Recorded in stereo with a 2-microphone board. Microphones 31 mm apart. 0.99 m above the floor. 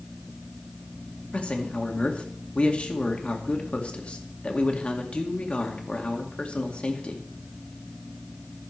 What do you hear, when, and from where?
1.3 s a man speaking: 35° left (ahead or behind), 2 m